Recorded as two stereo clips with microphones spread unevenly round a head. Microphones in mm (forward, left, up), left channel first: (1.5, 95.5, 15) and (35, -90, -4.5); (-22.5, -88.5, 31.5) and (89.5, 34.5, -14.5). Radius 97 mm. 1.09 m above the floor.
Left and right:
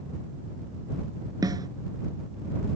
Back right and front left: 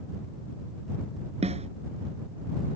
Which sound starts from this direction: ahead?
A snare drum, at 1.4 s.